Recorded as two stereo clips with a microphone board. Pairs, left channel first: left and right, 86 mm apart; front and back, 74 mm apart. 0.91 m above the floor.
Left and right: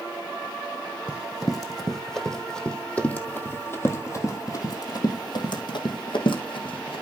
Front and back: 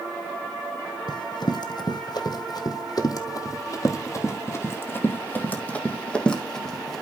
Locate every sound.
1.1 s running footsteps: 5° right, 2.5 m; by 7.0 s 85° left, 2.5 m